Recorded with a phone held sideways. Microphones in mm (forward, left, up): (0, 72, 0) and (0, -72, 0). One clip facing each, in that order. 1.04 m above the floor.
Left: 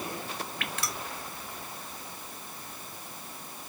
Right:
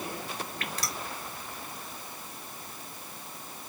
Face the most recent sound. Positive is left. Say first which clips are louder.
# even
turn(degrees=-35)  # may be behind; listen again after turning